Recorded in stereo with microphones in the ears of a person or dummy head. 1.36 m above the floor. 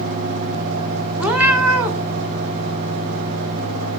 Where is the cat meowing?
5° right (ahead or behind), 1.0 m.